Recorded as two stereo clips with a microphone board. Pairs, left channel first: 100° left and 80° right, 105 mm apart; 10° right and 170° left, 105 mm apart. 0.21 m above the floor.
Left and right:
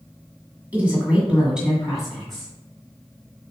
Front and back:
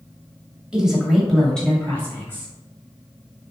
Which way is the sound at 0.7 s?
120° right.